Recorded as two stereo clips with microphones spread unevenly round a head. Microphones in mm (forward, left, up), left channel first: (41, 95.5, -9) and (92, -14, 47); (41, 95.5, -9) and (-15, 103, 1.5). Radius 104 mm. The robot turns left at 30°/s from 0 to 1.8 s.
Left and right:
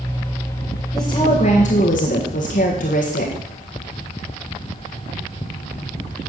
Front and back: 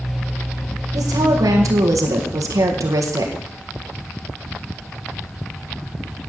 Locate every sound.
0.9 s a woman speaking: 165° right, 1.6 m; by 3.4 s 170° left, 1.6 m